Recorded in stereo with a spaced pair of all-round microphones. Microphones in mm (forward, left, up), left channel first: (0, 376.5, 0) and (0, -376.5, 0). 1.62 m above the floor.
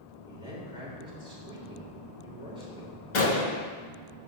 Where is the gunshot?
65° left (ahead or behind), 1.4 m.